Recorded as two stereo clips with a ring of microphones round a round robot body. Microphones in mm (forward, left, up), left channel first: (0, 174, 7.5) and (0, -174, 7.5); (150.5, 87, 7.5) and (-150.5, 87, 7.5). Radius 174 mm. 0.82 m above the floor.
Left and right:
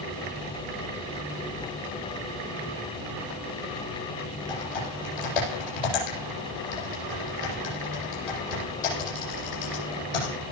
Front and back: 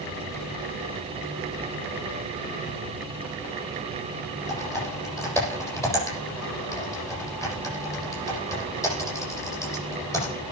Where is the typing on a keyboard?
80° left, 9 m.